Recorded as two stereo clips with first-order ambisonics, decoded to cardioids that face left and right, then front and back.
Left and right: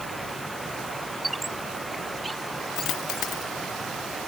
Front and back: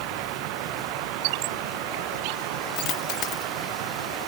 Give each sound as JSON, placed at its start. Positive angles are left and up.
{"t": 0.0, "sound": "running water", "azimuth_deg": 180}
{"t": 1.2, "sound": "a squeak", "azimuth_deg": -170}
{"t": 2.8, "sound": "a dropped coin", "azimuth_deg": 45}